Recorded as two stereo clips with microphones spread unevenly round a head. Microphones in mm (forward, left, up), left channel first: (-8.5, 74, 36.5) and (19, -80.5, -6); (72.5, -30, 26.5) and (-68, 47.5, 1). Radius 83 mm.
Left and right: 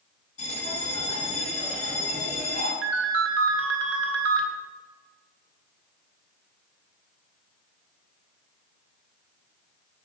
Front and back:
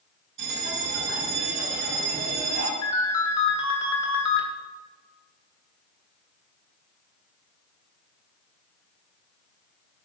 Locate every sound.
0.4 s a bell: 150° left, 6 m
2.8 s a ringtone: 95° right, 1.8 m